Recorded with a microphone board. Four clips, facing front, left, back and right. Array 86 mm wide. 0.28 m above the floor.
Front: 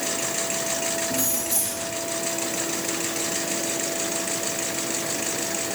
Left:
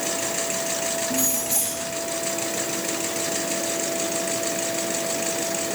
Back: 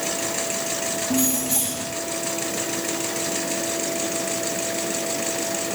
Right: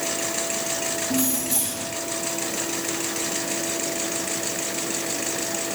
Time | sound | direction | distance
1.1 | keys jangling | 170° right | 7 m